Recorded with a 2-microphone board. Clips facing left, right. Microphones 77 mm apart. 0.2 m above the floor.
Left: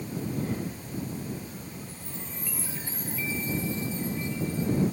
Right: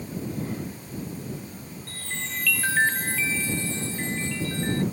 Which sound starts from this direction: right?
A chime, at 1.9 s.